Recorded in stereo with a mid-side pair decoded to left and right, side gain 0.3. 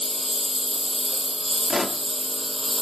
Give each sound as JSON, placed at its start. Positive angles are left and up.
{"t": 0.0, "sound": "a lawn mower", "azimuth_deg": 10}
{"t": 1.7, "sound": "a pop", "azimuth_deg": 35}